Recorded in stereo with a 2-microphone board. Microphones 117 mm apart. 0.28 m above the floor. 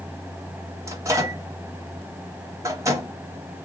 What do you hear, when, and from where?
0.9 s a microwave: 25° right (ahead or behind), 1.0 m